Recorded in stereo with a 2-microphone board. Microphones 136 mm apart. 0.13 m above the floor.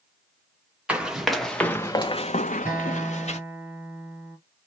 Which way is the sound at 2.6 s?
15° right (ahead or behind).